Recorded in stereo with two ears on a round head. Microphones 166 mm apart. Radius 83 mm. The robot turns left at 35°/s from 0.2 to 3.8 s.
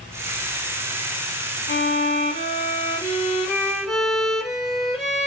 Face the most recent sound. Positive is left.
turn(degrees=0)